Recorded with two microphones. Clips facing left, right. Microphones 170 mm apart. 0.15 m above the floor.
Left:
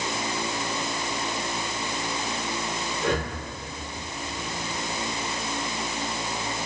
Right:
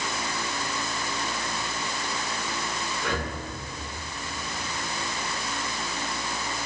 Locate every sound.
3.0 s breathing: 45° left (ahead or behind), 3 m